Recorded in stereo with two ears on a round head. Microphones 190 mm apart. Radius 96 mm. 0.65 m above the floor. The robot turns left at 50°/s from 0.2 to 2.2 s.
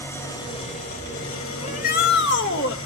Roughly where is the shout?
Left.